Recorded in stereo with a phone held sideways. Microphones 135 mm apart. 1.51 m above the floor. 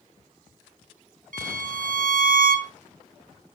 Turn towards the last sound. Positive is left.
turn(degrees=-75)  # may be behind; listen again after turning